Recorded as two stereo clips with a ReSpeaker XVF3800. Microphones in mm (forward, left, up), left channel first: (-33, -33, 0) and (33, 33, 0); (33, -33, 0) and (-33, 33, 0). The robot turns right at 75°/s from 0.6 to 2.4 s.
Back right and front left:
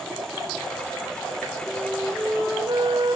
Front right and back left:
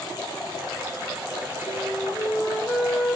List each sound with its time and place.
1.7 s a flute: 10° right, 3 m; by 3.2 s 45° left, 3 m